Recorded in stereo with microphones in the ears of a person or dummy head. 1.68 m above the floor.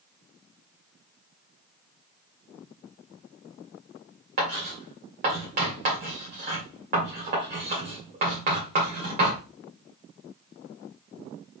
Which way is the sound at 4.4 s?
45° right (ahead or behind).